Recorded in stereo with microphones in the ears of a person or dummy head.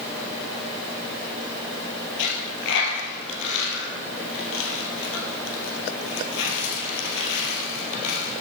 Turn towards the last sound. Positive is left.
turn(degrees=70)  # may be behind; listen again after turning